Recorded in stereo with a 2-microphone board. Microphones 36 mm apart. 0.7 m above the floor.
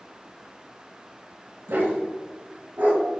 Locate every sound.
1.7 s a dog barking: 75° right (ahead or behind), 1.0 m; by 3.0 s 50° right (ahead or behind), 1.2 m